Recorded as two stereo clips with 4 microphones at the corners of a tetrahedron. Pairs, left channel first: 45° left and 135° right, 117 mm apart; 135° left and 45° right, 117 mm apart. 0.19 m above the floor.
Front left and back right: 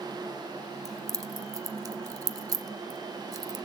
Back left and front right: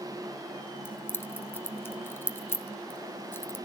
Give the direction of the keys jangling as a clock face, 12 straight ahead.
6 o'clock.